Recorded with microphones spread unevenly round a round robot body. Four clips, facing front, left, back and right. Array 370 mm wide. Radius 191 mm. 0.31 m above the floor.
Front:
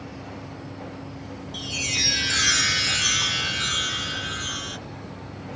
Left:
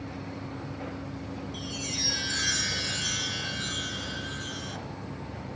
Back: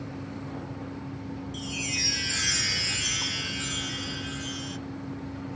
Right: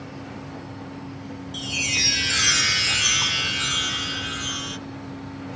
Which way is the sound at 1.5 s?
45° right.